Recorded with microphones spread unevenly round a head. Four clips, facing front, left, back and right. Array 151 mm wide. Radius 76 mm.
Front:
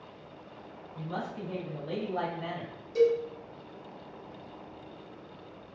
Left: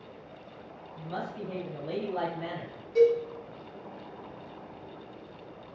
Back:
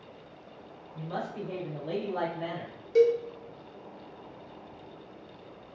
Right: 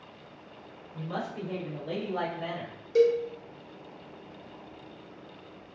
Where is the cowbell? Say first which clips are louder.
Even, back 2 dB; 145° right, 1.1 m.